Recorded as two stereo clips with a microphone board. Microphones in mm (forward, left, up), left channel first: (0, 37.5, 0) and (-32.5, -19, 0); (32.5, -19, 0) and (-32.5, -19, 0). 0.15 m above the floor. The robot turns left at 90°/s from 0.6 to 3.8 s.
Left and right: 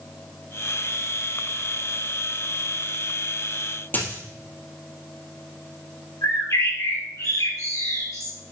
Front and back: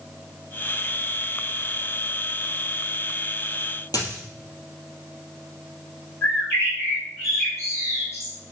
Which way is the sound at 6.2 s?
40° left.